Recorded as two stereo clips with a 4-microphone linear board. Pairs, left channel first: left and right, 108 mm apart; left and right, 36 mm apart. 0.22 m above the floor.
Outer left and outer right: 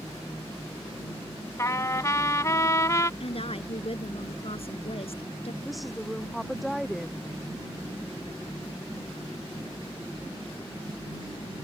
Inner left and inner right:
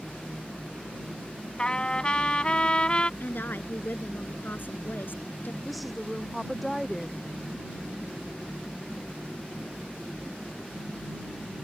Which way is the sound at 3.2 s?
60° left (ahead or behind).